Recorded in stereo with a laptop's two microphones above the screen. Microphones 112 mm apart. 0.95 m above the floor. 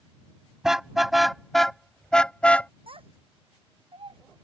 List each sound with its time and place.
0.6 s a car horn: 5° right (ahead or behind); by 2.7 s 15° left (ahead or behind)
2.9 s a child speaking: 60° right (ahead or behind)